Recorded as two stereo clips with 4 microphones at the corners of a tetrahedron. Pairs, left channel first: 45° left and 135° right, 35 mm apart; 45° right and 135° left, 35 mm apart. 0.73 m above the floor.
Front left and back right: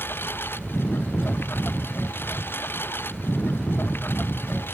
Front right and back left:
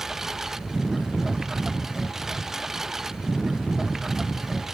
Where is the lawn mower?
55° left.